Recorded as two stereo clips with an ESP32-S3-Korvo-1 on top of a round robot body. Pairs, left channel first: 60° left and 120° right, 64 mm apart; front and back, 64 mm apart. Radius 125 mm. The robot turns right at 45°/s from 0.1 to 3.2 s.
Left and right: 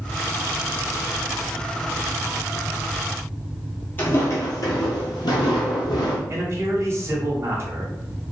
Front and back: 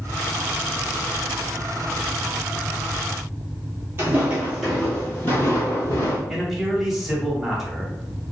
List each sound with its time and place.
4.0 s footsteps: 120° left, 0.7 m; by 6.2 s 40° left, 1.1 m
6.3 s a man speaking: 95° right, 1.3 m